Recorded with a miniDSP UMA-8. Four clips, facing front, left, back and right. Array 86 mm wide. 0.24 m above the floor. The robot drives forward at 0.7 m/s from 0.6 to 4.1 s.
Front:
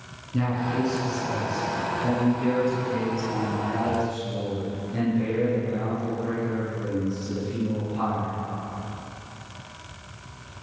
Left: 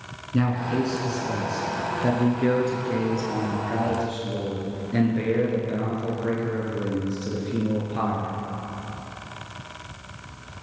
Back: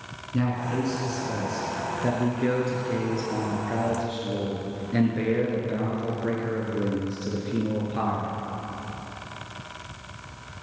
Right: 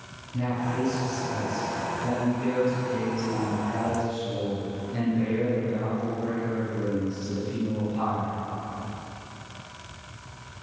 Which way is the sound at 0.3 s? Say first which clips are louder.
Left 4 dB, front 1 dB; 95° left.